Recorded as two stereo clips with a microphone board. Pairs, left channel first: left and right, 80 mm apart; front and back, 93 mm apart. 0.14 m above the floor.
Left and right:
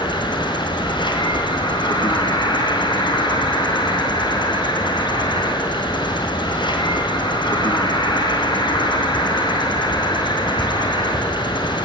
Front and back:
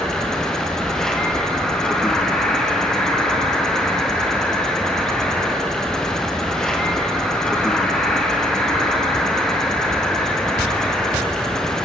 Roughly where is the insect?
Left.